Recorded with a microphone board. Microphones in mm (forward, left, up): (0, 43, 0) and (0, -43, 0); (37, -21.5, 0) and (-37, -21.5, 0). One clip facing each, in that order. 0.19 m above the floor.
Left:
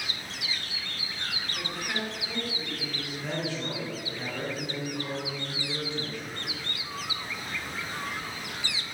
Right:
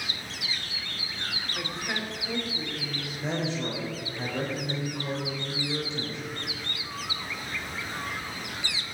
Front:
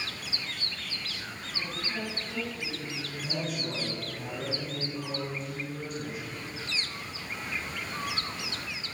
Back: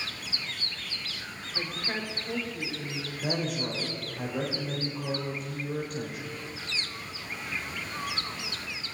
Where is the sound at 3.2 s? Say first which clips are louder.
Right 3 dB, back 4 dB; 155° right, 5 m.